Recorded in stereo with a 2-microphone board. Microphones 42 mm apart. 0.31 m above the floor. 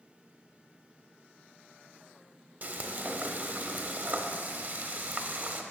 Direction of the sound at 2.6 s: 40° right (ahead or behind).